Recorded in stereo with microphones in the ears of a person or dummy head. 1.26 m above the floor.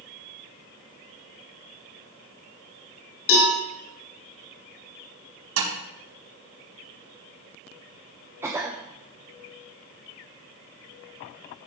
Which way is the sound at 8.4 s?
15° right (ahead or behind).